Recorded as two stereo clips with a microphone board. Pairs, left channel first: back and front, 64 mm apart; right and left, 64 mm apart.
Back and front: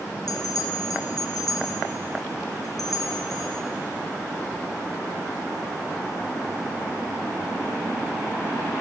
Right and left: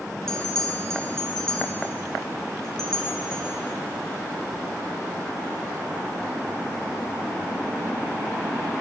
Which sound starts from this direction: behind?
A bell, at 0.3 s.